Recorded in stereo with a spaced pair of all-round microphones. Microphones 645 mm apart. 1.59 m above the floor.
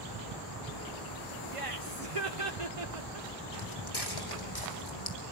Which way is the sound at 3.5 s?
40° left (ahead or behind).